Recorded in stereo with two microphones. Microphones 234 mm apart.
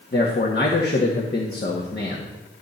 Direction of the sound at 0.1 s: 45° left (ahead or behind).